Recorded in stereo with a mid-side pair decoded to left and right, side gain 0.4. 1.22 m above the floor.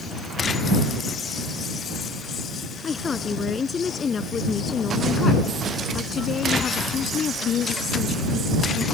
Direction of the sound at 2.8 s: 40° left.